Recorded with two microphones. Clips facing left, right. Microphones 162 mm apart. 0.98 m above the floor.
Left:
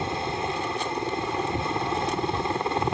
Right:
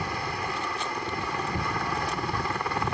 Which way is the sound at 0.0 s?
25° left (ahead or behind).